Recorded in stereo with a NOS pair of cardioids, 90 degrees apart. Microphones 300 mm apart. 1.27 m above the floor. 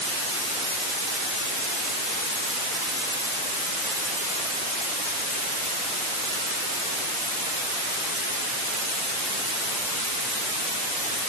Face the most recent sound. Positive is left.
No sound to turn to.